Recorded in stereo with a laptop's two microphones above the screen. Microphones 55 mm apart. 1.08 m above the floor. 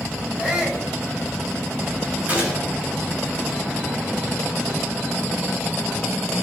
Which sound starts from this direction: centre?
A shout, at 0.4 s.